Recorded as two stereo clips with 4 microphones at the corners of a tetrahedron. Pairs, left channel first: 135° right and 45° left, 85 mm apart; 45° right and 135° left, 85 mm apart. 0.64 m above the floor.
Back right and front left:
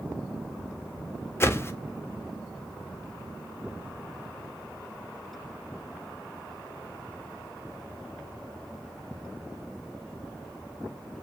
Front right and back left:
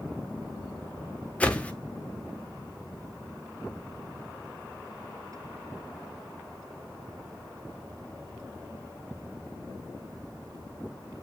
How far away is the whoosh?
About 0.7 m.